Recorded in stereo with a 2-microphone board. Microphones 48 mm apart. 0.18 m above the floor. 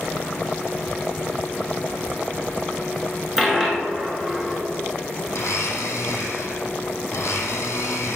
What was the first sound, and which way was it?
A dropped coin, 10° right (ahead or behind).